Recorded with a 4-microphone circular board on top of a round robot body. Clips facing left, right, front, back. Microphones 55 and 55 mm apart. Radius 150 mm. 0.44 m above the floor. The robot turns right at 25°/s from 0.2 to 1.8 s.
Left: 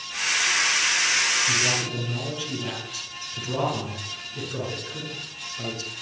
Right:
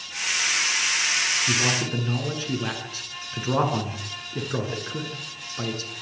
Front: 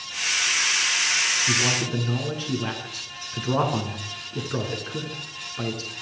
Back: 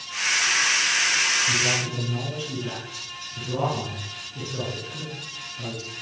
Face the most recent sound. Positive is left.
turn(degrees=-40)